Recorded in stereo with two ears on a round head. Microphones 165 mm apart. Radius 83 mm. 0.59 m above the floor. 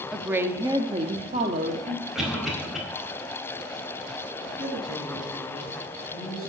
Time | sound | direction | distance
0.1 | a woman speaking | 5° right (ahead or behind) | 0.9 m
2.1 | a cough | centre (ahead or behind) | 4 m
4.4 | a man speaking | 85° right | 7.5 m